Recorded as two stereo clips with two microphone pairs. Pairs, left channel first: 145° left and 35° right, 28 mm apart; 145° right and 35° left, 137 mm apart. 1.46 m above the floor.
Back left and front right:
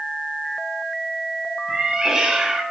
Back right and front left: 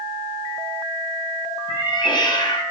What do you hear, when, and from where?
1.7 s a cat meowing: 95° right, 2 m